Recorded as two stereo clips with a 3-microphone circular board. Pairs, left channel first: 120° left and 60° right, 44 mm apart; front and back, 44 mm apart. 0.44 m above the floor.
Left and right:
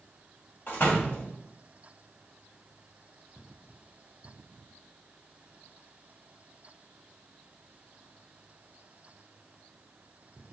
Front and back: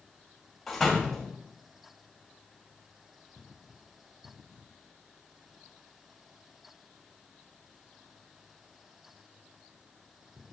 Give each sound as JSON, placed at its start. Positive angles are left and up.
{"t": 0.7, "sound": "a door slam", "azimuth_deg": 85, "distance_m": 1.7}